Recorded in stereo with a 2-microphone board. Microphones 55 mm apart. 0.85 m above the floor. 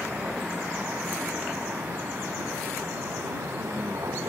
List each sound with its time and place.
0.0 s a vehicle: 25° right (ahead or behind); by 4.3 s 70° right (ahead or behind)